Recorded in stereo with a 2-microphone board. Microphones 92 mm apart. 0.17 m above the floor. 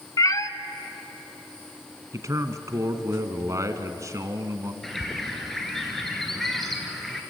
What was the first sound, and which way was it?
A cat meowing, 45° left (ahead or behind).